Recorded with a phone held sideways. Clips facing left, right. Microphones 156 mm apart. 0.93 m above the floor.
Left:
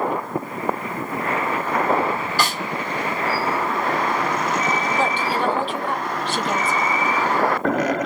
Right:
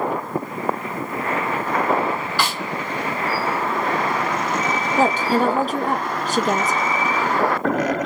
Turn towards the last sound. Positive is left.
turn(degrees=-40)  # may be behind; listen again after turning